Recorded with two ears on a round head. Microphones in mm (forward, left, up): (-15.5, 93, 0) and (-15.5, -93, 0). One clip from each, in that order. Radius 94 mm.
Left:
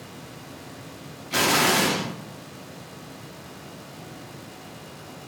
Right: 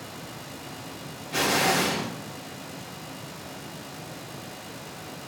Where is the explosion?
35° left (ahead or behind), 0.7 m.